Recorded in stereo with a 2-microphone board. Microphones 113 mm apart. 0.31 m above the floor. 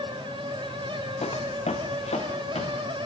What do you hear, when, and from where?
1.2 s footsteps: 65° left (ahead or behind), 0.8 m; by 2.8 s 75° left (ahead or behind), 2 m